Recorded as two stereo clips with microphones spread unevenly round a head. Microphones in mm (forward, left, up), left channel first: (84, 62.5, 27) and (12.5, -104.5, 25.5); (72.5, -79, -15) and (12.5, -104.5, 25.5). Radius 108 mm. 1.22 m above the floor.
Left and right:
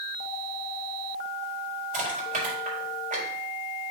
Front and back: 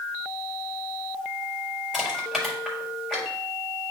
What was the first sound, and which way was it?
Crushing, 70° right.